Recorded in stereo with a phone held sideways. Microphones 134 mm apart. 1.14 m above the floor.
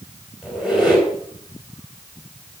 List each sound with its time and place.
0.4 s a squeak: 5° right (ahead or behind), 6 m